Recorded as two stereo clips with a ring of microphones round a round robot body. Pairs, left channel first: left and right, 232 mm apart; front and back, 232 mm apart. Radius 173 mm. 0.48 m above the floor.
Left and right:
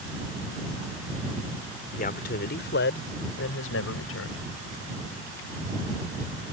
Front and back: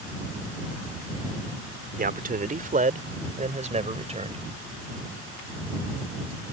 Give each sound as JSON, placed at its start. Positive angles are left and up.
{"t": 2.0, "sound": "a man speaking", "azimuth_deg": 140}